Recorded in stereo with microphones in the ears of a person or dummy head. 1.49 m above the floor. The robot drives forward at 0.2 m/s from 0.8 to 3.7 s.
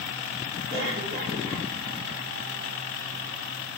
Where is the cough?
65° right (ahead or behind), 2 m; by 1.7 s 70° right (ahead or behind), 2 m.